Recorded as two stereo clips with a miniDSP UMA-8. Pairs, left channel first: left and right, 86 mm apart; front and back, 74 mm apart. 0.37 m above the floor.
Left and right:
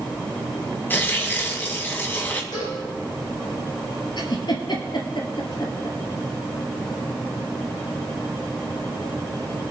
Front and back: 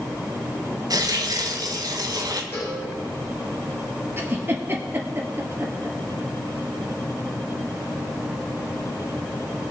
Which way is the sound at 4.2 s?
120° left.